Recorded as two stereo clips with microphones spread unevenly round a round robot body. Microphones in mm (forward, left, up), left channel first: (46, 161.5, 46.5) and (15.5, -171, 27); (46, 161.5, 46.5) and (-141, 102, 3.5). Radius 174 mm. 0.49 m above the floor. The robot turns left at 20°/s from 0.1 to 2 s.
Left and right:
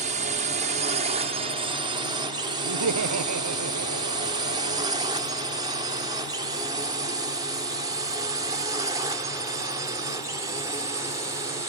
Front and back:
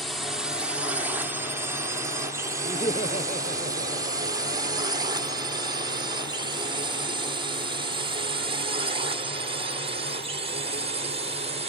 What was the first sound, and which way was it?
A drone, 100° right.